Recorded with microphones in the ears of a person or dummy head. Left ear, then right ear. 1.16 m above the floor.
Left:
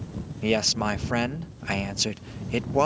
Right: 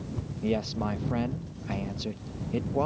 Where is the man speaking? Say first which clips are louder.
Left 7 dB; 70° left (ahead or behind).